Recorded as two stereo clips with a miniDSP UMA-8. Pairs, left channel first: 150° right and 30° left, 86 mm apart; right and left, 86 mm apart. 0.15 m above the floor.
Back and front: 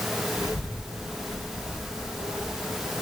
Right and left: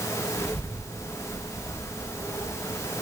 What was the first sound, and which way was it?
A child speaking, 160° right.